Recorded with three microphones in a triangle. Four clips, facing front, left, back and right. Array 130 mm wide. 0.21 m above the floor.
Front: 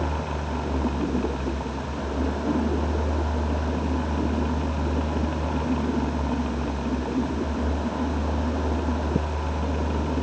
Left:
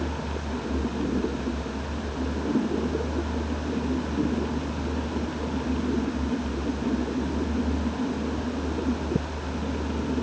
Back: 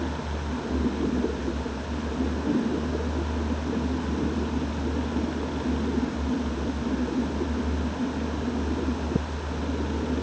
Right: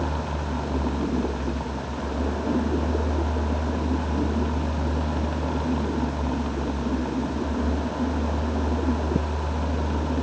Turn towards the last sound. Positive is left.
No sound to turn to.